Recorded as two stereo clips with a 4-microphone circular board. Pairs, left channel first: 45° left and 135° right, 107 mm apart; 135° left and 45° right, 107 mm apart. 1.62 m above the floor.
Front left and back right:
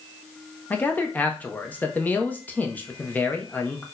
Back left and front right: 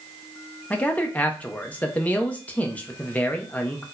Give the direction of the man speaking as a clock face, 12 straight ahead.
9 o'clock.